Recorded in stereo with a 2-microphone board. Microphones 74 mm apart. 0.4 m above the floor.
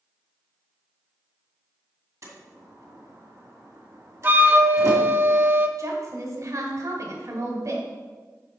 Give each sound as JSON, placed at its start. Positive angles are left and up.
{"t": 2.2, "sound": "a door slam", "side_deg": -45, "distance_m": 2.0}
{"t": 4.2, "sound": "a flute", "side_deg": -30, "distance_m": 0.7}
{"t": 5.8, "sound": "a woman speaking", "side_deg": -50, "distance_m": 1.9}